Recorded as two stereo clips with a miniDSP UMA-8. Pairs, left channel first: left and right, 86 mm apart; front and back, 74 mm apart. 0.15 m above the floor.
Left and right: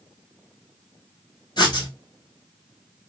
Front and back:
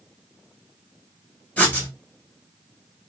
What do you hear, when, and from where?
1.6 s writing: 65° left, 1.1 m